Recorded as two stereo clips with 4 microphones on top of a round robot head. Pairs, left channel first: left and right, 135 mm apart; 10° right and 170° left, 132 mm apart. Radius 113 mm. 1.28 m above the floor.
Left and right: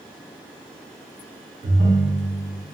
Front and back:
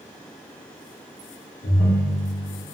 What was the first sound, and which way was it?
A ringtone, 55° right.